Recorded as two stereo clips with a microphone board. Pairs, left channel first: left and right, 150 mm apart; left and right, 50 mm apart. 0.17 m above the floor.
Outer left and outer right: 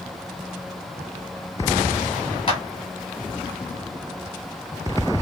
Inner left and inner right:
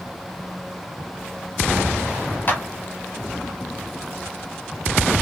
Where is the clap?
35° left (ahead or behind), 2.5 m.